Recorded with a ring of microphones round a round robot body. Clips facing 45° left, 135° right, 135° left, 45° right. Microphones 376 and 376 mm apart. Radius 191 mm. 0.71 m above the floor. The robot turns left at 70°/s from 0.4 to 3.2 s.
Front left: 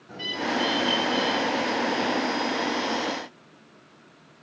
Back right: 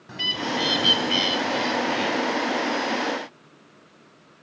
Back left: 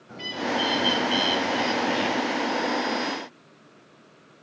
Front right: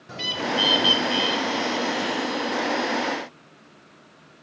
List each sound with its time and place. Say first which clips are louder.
0.1 s a bird: even, front right 1 dB; 75° right, 1.2 m; by 2.2 s 160° left, 1.2 m